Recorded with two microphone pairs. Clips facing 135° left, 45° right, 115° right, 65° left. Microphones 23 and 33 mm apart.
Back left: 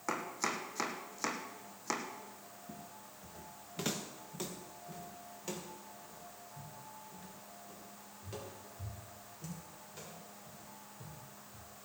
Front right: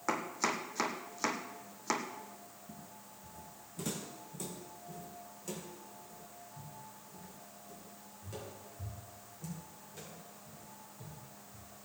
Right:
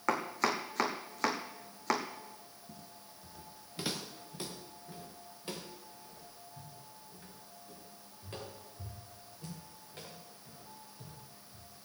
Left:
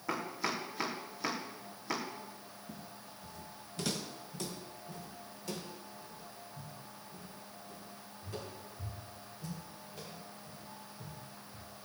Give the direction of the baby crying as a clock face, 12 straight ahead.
No baby crying in this recording.